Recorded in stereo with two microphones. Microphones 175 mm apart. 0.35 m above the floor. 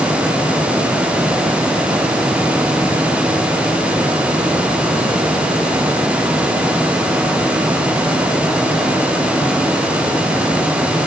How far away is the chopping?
I don't hear chopping.